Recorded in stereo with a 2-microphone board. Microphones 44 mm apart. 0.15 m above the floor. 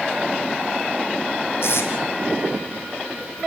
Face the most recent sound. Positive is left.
turn(degrees=75)  # may be behind; listen again after turning